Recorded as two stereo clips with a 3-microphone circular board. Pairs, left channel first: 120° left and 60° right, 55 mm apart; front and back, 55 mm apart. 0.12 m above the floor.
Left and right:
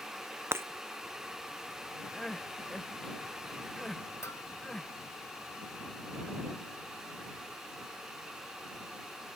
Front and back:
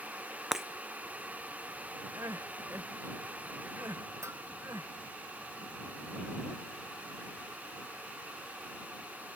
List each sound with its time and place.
0.5 s breaking glass: 95° right
2.1 s crying: 160° right
4.2 s a bell: 150° left